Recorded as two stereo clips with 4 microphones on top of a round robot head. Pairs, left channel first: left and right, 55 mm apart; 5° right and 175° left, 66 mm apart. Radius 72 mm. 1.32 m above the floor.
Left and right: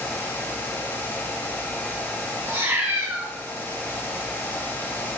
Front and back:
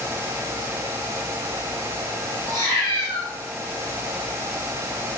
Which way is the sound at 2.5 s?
145° right.